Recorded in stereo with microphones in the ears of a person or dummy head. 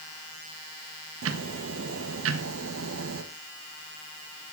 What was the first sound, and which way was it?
Ticking, 75° right (ahead or behind).